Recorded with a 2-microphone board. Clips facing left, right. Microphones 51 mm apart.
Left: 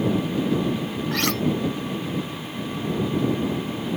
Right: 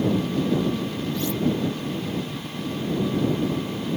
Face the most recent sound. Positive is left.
turn(degrees=70)  # may be behind; listen again after turning